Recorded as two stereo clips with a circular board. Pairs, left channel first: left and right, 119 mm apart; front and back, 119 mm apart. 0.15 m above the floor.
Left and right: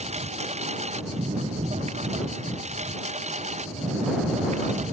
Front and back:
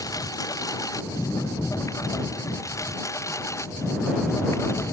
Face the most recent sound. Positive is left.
turn(degrees=-65)